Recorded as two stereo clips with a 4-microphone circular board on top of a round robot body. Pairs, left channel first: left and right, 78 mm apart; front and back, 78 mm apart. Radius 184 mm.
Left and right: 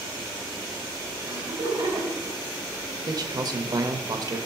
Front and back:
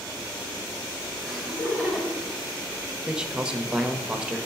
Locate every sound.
1.2 s laughter: 85° right, 3.5 m
3.1 s a man speaking: 100° right, 1.2 m